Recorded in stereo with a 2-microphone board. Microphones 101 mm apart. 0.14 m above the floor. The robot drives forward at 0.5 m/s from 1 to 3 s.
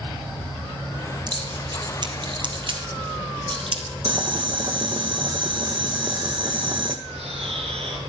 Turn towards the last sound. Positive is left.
turn(degrees=-75)  # may be behind; listen again after turning